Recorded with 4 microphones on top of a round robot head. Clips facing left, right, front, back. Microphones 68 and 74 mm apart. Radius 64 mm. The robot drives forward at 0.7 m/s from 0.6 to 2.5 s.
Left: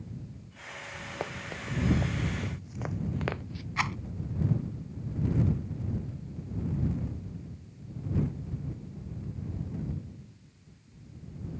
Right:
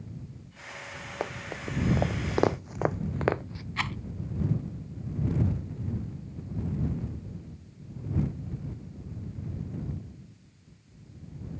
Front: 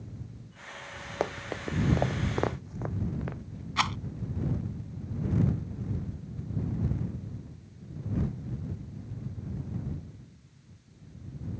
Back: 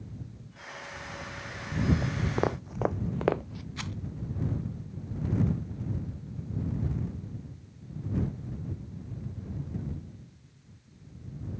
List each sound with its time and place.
1.2 s running footsteps: 15° right; by 3.7 s 155° right
3.8 s a rattle: 10° left